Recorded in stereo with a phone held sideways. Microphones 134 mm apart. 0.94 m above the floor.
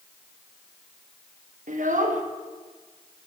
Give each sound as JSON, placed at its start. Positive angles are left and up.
{"t": 1.7, "sound": "a child speaking", "side_deg": -70, "distance_m": 0.8}